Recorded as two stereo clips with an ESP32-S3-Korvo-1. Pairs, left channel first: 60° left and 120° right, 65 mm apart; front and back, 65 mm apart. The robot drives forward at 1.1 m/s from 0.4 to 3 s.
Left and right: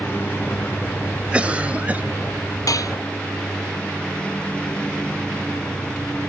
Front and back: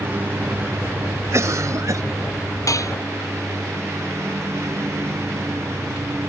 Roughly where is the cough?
Behind.